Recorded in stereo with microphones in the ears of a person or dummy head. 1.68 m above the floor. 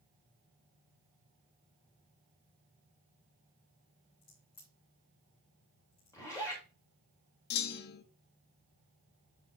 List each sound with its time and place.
4.2 s a crack: 20° left (ahead or behind), 5 m
6.1 s a zipper: 15° left (ahead or behind), 4 m
7.5 s a clunk: 55° left (ahead or behind), 0.8 m